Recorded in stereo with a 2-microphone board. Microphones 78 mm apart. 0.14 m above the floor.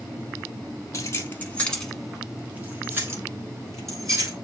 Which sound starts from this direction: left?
Keys jangling, at 0.9 s.